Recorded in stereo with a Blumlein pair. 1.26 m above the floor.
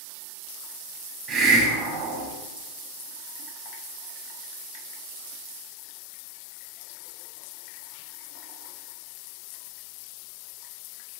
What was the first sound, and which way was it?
A hiss, 25° right.